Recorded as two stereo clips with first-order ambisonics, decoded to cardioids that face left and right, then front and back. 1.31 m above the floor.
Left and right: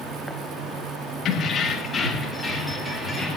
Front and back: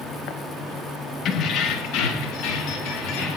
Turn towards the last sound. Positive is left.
turn(degrees=-5)